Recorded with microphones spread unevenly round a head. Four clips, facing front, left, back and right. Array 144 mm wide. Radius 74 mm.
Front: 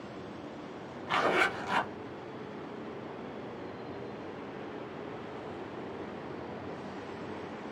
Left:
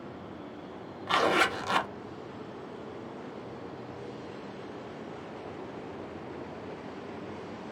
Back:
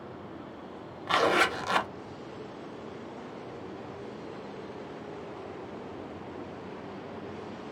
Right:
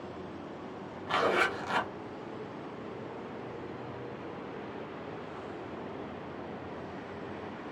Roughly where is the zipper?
Behind left.